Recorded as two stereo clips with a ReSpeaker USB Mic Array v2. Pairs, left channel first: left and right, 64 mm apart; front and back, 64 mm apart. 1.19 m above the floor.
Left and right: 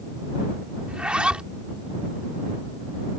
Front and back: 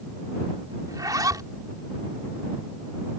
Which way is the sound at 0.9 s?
165° right.